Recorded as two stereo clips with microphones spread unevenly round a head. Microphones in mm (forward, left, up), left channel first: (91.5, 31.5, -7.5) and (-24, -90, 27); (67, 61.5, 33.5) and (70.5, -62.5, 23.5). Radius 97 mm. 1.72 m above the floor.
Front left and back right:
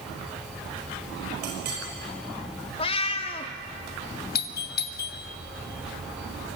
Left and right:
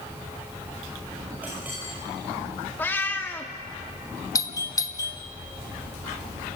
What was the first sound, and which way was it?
A clink, 170° right.